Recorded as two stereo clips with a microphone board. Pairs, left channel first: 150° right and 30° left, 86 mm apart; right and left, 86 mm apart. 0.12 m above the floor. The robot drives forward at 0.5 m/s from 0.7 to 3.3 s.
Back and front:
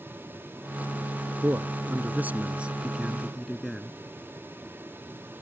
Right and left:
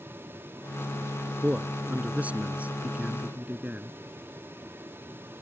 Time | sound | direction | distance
1.4 | a man speaking | 30° left | ?